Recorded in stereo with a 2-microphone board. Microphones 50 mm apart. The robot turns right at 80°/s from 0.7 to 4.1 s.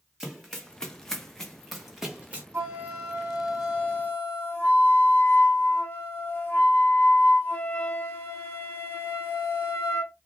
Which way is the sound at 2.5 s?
75° right.